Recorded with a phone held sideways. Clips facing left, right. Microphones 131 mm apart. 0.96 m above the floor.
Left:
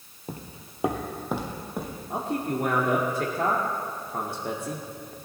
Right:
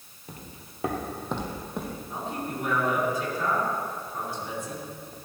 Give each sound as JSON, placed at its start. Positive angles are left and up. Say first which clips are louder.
{"t": 0.3, "sound": "footsteps", "louder": "left 5 dB", "side_deg": 35, "distance_m": 1.1}
{"t": 2.1, "sound": "a man speaking", "louder": "left 7 dB", "side_deg": 60, "distance_m": 1.8}